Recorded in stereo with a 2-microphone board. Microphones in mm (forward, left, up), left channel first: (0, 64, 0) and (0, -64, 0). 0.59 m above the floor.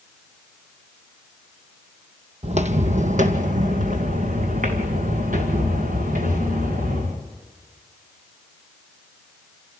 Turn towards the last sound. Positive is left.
turn(degrees=-80)